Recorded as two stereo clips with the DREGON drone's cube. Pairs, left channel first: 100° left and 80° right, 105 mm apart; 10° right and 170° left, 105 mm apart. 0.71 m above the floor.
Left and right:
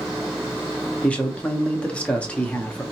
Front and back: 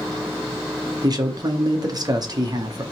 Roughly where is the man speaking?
Behind.